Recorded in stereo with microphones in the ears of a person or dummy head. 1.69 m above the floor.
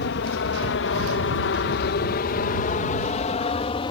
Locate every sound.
0.0 s an aircraft: 60° left (ahead or behind); by 3.9 s 25° left (ahead or behind)